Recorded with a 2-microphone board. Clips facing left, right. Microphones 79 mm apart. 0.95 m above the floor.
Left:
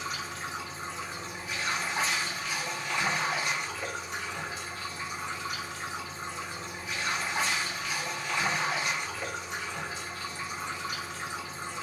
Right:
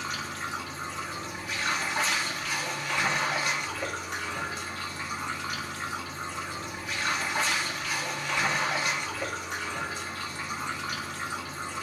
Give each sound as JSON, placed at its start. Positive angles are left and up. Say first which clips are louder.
{"t": 0.0, "sound": "running water", "louder": "right 2 dB", "side_deg": -60, "distance_m": 1.3}